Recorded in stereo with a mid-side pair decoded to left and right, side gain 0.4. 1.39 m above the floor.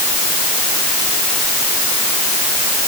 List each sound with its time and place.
Only background noise.